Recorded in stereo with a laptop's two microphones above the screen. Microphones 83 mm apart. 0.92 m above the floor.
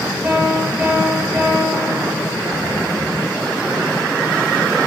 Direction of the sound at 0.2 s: 20° right (ahead or behind).